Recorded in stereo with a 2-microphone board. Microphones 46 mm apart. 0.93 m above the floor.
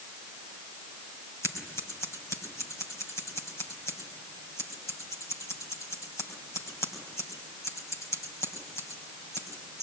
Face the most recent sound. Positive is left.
turn(degrees=85)